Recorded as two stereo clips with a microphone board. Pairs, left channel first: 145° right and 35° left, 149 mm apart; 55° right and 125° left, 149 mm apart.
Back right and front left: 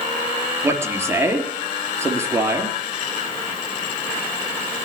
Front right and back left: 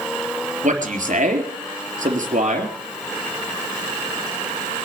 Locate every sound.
0.6 s a man speaking: 105° left, 3.5 m